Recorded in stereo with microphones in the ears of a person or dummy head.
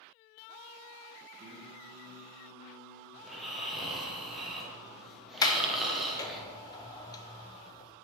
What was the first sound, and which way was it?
Singing, 45° right (ahead or behind).